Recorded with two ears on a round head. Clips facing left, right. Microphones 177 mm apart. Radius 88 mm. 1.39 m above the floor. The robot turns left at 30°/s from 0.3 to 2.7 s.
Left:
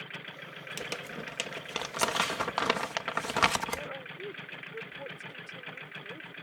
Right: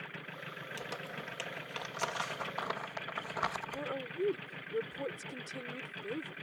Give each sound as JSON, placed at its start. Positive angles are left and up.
{"t": 0.8, "sound": "crumpling", "side_deg": 35}
{"t": 3.7, "sound": "a woman speaking", "side_deg": -60}